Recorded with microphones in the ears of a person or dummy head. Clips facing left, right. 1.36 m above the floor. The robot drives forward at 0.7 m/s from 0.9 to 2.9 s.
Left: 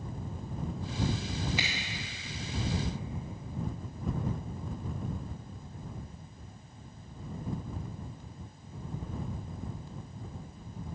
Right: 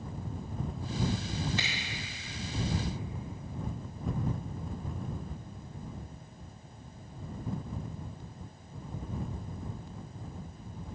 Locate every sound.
1.6 s a finger snap: 10° left (ahead or behind), 2 m